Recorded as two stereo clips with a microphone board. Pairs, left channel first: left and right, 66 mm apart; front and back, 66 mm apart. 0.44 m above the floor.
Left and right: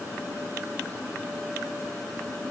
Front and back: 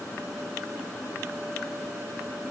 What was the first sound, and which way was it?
Only background noise.